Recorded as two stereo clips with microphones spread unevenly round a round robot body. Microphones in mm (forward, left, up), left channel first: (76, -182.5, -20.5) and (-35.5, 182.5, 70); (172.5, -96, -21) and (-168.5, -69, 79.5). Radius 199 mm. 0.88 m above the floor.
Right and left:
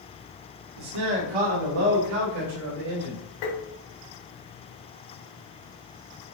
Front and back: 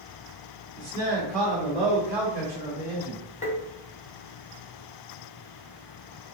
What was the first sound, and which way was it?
A man speaking, 75° left.